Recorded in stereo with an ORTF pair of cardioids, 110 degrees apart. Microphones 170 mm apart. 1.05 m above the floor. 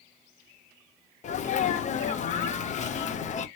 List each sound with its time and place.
1.2 s a sneeze: 45° left, 0.5 m